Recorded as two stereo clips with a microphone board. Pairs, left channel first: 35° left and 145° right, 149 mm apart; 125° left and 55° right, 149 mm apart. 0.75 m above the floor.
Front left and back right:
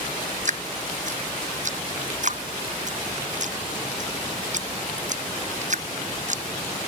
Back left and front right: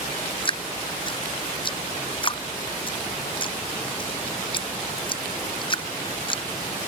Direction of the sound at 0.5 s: Straight behind.